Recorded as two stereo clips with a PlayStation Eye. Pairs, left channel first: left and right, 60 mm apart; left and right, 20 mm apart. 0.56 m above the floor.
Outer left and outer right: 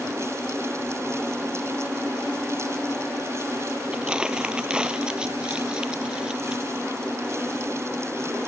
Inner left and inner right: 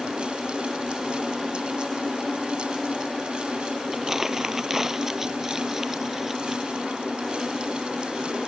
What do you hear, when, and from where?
3.9 s crumpling: 15° right (ahead or behind)